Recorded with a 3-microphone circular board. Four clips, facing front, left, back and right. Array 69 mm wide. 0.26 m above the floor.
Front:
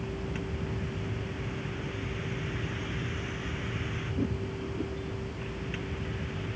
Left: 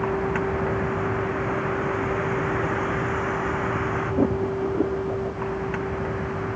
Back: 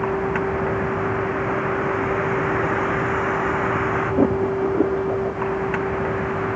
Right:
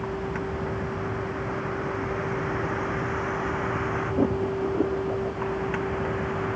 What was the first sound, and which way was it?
A vehicle, 155° left.